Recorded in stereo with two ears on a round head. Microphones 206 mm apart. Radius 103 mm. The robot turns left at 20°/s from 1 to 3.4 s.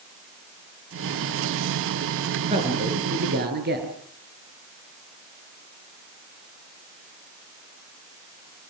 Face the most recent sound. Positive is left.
turn(degrees=-40)  # may be behind; listen again after turning